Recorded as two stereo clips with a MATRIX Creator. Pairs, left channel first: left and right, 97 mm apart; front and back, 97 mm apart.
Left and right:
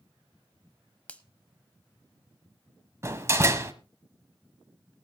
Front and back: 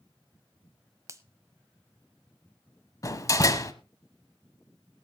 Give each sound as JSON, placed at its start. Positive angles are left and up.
{"t": 1.1, "sound": "a finger snap", "azimuth_deg": 155, "distance_m": 0.9}
{"t": 3.0, "sound": "a door slam", "azimuth_deg": -40, "distance_m": 1.1}